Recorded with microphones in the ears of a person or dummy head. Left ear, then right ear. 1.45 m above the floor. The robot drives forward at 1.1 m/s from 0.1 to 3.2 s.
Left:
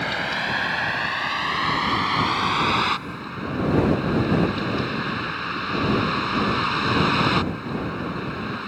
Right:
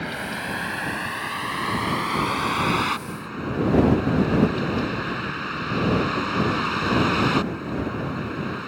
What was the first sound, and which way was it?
A vehicle, 30° left (ahead or behind).